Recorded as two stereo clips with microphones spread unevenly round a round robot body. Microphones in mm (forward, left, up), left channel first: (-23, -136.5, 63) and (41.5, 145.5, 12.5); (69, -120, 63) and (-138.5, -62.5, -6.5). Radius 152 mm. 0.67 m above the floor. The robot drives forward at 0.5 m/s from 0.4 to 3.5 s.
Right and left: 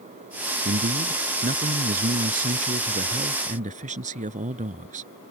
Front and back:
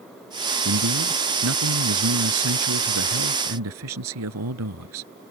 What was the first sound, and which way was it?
A man speaking, 140° left.